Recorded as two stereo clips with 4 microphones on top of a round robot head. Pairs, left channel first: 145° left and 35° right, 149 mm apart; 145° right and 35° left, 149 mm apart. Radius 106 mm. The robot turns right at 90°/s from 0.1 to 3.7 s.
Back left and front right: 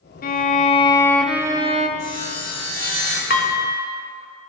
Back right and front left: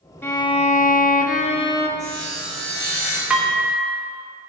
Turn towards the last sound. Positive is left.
turn(degrees=155)